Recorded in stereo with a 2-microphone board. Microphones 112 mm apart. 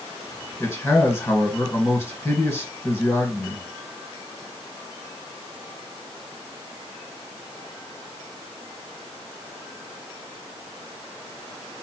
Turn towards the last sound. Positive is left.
turn(degrees=25)  # may be behind; listen again after turning